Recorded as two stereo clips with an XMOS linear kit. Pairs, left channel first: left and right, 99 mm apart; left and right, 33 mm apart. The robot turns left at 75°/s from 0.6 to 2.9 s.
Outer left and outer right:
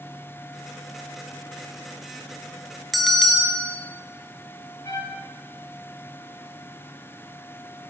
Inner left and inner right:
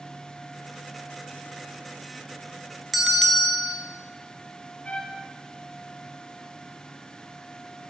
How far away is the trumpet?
About 0.8 m.